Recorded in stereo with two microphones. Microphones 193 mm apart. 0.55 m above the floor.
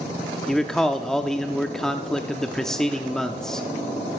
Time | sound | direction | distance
0.5 | a man speaking | centre (ahead or behind) | 0.6 m